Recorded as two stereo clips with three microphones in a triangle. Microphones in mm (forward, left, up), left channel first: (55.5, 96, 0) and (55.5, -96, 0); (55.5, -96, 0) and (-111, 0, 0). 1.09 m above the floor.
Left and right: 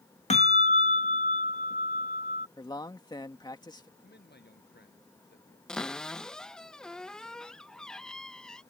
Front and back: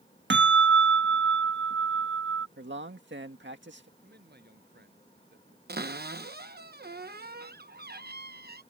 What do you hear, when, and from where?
0.3 s a bell: 140° left
2.6 s a man speaking: 155° left
4.0 s a man speaking: 120° left
5.7 s a cupboard door: 175° left